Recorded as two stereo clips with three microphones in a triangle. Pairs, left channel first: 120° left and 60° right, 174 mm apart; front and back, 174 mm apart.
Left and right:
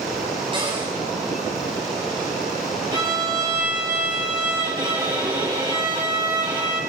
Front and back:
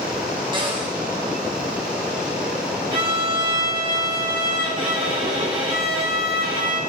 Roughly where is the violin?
Behind right.